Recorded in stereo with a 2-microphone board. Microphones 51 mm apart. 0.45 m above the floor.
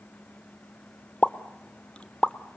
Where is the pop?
20° left (ahead or behind), 0.9 m.